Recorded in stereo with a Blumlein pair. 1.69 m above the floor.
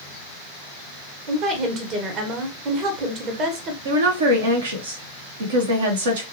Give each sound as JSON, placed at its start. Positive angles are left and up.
{"t": 1.3, "sound": "a woman speaking", "azimuth_deg": -35, "distance_m": 1.4}
{"t": 3.9, "sound": "a woman speaking", "azimuth_deg": -65, "distance_m": 1.5}